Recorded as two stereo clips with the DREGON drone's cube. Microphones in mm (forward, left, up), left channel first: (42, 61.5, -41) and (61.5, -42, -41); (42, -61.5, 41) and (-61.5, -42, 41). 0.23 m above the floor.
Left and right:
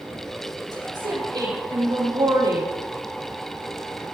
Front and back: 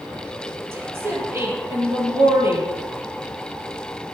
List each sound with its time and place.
0.7 s a woman speaking: 125° right, 6 m